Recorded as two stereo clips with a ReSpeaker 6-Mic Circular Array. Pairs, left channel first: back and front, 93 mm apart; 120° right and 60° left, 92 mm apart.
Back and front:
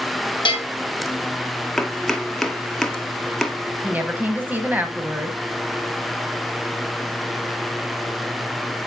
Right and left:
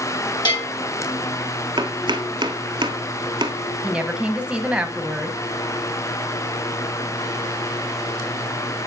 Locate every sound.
0.5 s a bell: 150° right, 3 m
1.8 s chopping: 95° left, 0.8 m
3.8 s a woman speaking: 5° left, 1.0 m